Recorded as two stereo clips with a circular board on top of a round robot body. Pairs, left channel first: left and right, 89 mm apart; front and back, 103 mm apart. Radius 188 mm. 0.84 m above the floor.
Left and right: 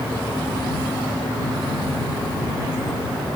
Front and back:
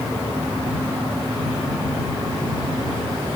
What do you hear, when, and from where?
Only background noise.